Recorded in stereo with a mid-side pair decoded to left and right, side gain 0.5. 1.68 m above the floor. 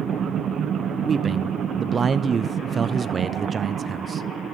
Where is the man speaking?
40° right, 0.8 m.